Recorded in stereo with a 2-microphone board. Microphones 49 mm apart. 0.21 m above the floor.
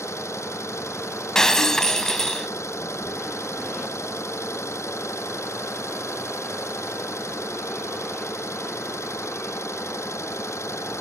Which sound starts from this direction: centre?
Breaking glass, at 1.4 s.